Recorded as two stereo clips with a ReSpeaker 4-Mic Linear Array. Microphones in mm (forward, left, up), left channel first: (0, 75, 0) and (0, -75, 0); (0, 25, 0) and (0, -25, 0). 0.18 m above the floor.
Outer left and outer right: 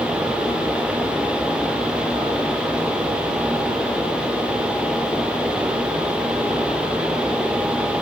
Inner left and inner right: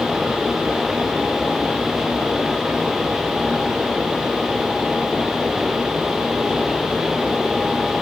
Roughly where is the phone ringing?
I don't hear a phone ringing.